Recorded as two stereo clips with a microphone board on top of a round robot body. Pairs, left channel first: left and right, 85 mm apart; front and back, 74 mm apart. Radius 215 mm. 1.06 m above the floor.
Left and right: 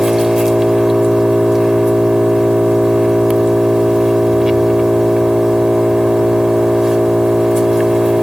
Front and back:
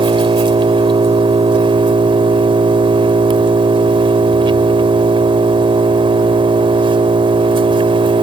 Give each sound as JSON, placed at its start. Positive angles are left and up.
{"t": 0.0, "sound": "an engine running", "azimuth_deg": -175}